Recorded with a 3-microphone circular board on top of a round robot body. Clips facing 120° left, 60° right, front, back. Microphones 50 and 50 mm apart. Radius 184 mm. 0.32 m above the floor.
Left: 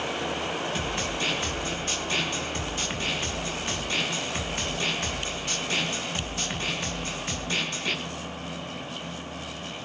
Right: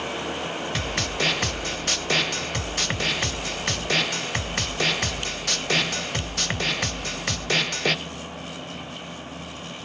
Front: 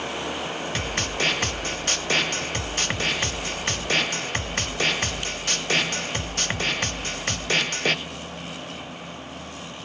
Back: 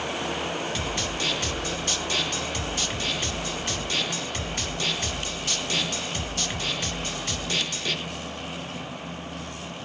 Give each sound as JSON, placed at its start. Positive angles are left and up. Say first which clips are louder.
{"t": 0.8, "sound": "a snare drum", "louder": "right 2 dB, front 2 dB", "azimuth_deg": -40, "distance_m": 0.9}